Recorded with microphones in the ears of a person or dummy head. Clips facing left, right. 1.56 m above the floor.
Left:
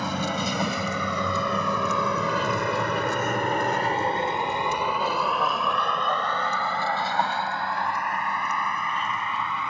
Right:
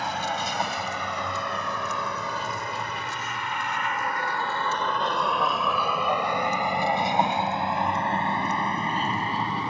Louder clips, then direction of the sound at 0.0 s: Left 2 dB; 80° left.